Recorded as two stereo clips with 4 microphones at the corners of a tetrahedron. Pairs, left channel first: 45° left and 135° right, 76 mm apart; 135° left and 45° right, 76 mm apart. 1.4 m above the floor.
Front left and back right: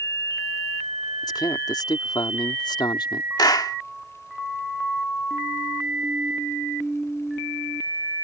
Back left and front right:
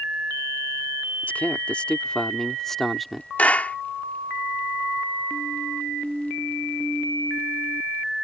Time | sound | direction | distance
1.2 | a man speaking | 65° left | ?
3.4 | a clap | 65° left | ?